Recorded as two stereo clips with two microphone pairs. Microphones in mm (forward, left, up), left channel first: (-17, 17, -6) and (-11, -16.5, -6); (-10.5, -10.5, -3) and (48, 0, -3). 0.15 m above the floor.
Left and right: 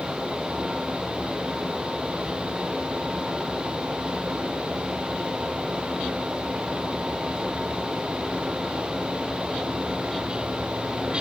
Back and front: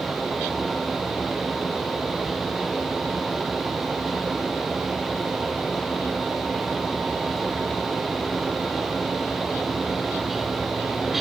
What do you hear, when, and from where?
Only background noise.